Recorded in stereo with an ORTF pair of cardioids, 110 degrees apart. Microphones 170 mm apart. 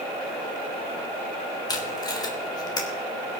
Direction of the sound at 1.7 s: 25° left.